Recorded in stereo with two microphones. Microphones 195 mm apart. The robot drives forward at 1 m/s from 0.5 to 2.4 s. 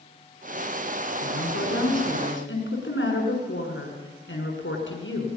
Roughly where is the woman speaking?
Left.